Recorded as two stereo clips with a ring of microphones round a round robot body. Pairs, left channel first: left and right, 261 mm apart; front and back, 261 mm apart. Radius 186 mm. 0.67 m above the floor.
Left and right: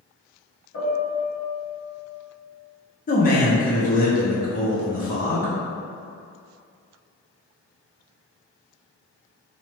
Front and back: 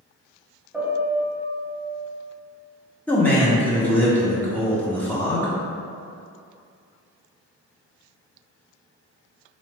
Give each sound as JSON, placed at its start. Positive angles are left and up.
{"t": 0.7, "sound": "a piano", "azimuth_deg": 90, "distance_m": 1.9}
{"t": 3.1, "sound": "a man speaking", "azimuth_deg": 80, "distance_m": 0.7}